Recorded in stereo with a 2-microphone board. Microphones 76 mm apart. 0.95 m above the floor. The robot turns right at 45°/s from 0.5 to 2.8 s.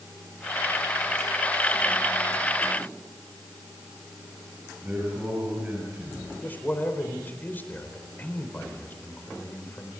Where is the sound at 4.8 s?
25° right (ahead or behind), 7.5 m.